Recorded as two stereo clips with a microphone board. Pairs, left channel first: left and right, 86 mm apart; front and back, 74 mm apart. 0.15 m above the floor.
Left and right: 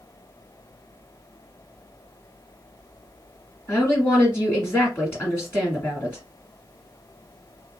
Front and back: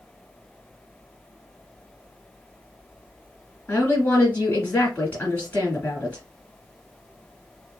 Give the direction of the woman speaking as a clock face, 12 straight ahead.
10 o'clock.